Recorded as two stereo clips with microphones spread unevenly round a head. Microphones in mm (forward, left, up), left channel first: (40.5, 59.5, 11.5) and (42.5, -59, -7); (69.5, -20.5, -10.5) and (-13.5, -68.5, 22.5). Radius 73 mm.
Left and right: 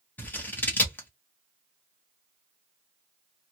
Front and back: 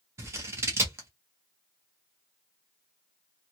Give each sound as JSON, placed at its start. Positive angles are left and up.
{"t": 0.2, "sound": "scissors", "azimuth_deg": 160, "distance_m": 0.7}